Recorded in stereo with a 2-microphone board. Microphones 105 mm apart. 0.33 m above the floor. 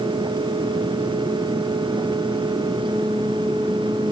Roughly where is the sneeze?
No sneeze in this recording.